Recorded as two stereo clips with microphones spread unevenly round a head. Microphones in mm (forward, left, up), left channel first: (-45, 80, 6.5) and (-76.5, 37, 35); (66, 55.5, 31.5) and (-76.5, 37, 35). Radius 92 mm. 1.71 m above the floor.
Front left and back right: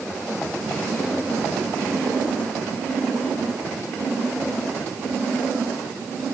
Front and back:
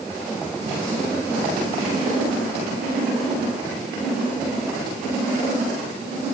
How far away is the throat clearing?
I don't hear throat clearing.